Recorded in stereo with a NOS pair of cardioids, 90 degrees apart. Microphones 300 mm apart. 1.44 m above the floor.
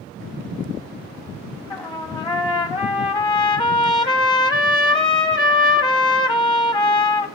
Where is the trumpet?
15° left, 1.0 m.